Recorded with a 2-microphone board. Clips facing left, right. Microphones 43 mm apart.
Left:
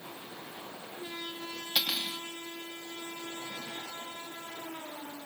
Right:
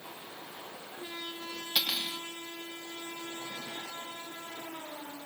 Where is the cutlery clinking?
10° left (ahead or behind), 1.3 m.